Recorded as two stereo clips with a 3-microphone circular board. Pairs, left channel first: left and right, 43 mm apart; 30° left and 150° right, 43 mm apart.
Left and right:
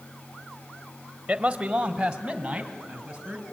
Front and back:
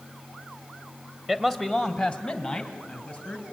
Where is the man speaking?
50° right, 1.1 m; by 3.4 s 20° right, 3 m.